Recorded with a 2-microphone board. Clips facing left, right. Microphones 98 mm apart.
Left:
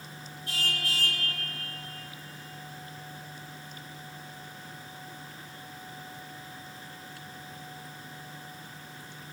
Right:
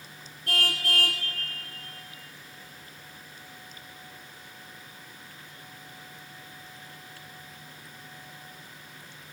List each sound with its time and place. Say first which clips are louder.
0.5 s a car horn: right 4 dB; 65° right (ahead or behind), 3 m